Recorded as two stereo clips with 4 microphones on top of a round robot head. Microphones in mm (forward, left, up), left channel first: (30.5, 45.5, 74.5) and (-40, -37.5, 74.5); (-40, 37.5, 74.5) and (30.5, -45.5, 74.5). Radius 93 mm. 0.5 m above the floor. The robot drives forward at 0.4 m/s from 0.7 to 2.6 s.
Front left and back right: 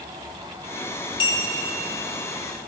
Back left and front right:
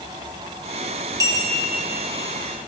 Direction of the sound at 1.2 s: 10° left.